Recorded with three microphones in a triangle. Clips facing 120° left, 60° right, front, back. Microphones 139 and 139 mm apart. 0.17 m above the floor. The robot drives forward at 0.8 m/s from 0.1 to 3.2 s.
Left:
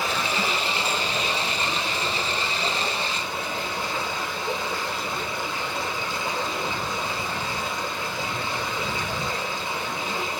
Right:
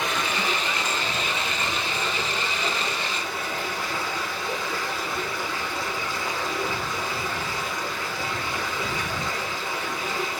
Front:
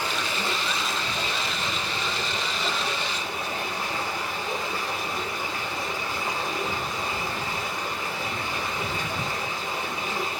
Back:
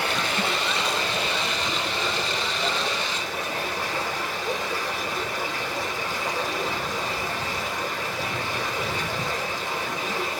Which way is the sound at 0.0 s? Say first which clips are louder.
Left 1 dB, back 3 dB; 155° right.